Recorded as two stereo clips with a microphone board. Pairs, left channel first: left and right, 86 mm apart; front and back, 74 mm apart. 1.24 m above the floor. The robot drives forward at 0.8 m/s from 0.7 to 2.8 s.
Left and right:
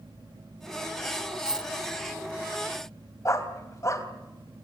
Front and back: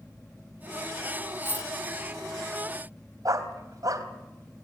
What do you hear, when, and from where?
1.4 s a dropped coin: 15° right, 0.6 m; by 1.7 s 45° right, 0.5 m
3.2 s a dog barking: 145° left, 3 m